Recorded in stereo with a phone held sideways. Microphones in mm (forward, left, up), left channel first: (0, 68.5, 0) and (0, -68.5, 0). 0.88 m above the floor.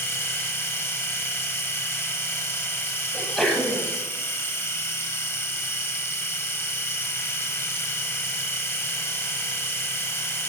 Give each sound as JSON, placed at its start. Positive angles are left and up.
{"t": 0.0, "sound": "a machine running", "side_deg": 15, "distance_m": 3.5}
{"t": 3.1, "sound": "a sneeze", "side_deg": 0, "distance_m": 7.0}